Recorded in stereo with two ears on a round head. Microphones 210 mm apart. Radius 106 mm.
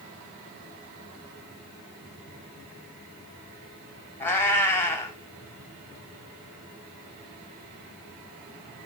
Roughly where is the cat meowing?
Centre.